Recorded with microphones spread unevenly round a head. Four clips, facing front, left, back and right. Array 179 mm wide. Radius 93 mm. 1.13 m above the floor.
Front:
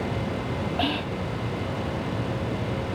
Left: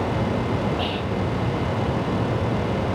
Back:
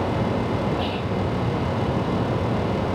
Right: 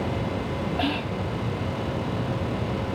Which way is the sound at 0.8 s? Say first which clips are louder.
Left 2 dB, back 2 dB; 30° right.